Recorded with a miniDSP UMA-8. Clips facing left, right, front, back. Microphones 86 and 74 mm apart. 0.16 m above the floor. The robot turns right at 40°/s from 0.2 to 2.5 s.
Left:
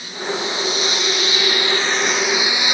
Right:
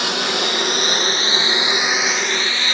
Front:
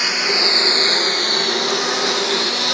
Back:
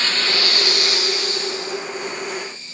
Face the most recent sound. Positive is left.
turn(degrees=15)